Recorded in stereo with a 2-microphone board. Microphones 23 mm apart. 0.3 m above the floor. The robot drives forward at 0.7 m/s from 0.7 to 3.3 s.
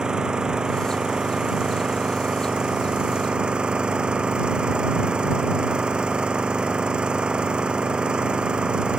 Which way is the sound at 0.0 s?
35° right (ahead or behind).